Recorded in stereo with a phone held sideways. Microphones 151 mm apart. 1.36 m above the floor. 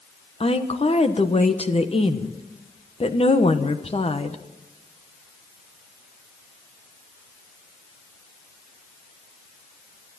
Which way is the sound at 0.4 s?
40° left (ahead or behind).